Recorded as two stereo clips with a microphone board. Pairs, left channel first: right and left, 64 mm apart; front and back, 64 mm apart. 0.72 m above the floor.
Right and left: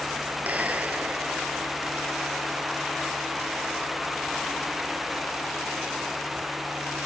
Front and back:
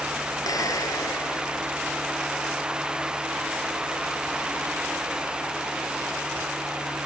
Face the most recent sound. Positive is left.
turn(degrees=25)